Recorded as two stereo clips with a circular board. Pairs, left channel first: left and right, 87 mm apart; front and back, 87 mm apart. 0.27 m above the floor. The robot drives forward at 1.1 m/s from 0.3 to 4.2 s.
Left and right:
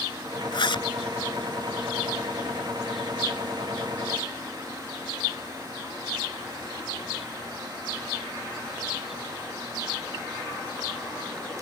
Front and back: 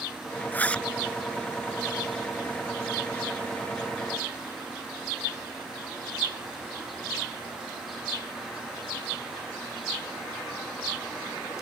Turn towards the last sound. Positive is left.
turn(degrees=155)